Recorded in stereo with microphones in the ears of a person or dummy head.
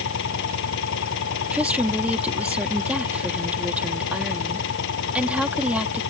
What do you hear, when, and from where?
0.0 s an engine running: 70° left (ahead or behind)
1.5 s a woman speaking: 10° right (ahead or behind)